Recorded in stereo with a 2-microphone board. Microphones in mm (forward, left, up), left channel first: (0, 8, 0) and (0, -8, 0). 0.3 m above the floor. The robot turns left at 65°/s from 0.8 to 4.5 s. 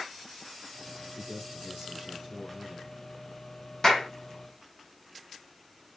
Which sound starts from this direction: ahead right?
A man speaking, at 1.1 s.